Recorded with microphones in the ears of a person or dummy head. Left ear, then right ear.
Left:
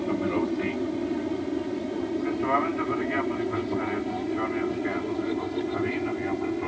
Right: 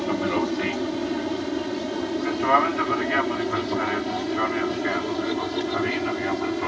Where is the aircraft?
40° right (ahead or behind); by 6.7 s 45° right (ahead or behind).